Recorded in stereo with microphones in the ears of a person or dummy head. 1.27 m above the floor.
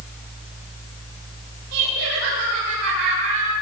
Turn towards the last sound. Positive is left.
turn(degrees=-70)  # may be behind; listen again after turning